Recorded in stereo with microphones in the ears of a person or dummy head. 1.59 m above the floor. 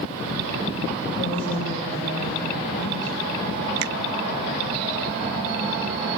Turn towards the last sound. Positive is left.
turn(degrees=-60)  # may be behind; listen again after turning